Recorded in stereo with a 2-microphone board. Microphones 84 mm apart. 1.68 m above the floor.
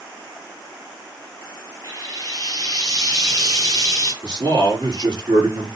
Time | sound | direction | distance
1.8 | frying | 45° right (ahead or behind) | 6.5 m
4.2 | a man speaking | 60° right (ahead or behind) | 4.5 m